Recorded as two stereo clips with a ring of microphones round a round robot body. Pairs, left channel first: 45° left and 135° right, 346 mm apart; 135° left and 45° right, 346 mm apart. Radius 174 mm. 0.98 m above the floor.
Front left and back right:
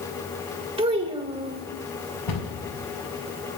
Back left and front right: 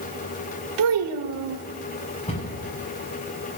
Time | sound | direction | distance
0.8 | a child speaking | 60° right | 1.9 m
2.3 | a cupboard door | 65° left | 7 m